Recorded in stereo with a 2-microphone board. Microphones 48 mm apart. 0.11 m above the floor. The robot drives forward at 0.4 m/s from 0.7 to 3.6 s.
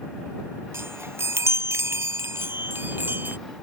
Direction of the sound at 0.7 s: 55° right (ahead or behind).